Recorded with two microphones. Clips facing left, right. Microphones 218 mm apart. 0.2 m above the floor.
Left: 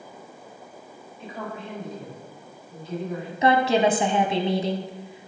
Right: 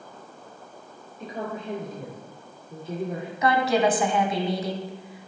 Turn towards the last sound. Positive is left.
turn(degrees=25)  # may be behind; listen again after turning